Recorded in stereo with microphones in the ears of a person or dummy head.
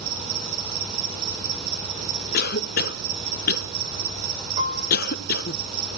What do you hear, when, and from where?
0.0 s an insect: 50° right (ahead or behind), 8 m
2.3 s a cough: 50° left (ahead or behind), 1.2 m
4.6 s a piano: 45° right (ahead or behind), 3.5 m